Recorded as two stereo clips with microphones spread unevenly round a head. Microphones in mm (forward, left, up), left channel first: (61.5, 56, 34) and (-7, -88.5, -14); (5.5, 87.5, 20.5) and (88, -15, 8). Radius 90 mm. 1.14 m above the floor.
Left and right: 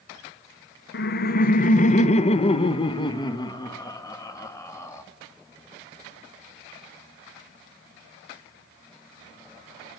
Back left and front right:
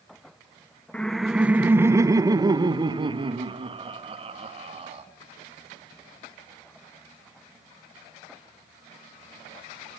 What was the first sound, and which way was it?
Laughter, 45° left.